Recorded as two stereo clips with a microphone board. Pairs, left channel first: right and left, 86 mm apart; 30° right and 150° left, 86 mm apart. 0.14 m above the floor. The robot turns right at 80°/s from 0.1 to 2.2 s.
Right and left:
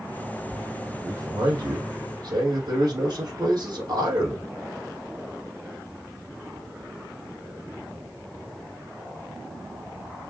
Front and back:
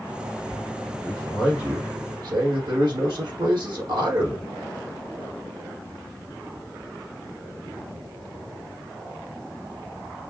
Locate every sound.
1.0 s a man speaking: 30° left, 3.5 m; by 4.5 s 120° left, 3.5 m